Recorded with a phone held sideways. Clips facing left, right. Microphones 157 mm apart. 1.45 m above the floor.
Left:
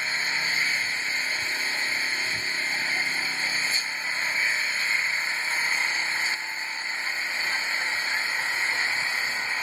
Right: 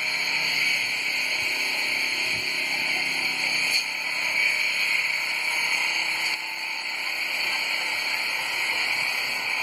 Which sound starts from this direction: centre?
An engine running, at 0.0 s.